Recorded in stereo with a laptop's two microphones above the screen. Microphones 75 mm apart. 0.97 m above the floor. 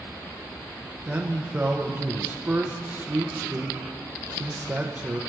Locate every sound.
1.1 s a man speaking: 20° right (ahead or behind), 0.9 m